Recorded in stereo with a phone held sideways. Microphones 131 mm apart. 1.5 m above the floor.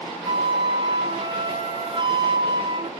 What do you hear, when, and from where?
0.2 s a flute: 40° right (ahead or behind), 1.0 m